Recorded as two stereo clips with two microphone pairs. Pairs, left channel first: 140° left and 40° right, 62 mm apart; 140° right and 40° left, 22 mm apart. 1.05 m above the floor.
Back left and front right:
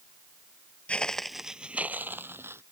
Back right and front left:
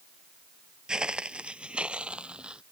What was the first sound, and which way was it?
Footsteps, 75° left.